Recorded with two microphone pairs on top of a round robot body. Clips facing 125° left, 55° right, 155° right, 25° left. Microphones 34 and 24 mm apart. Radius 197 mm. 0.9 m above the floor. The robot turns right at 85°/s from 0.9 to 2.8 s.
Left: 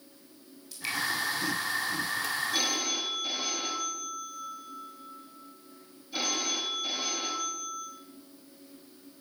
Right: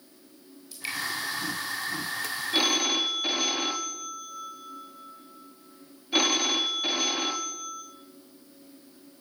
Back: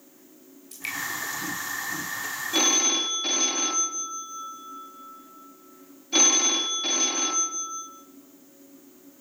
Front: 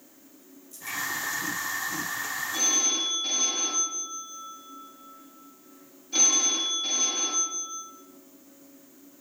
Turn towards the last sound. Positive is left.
turn(degrees=-90)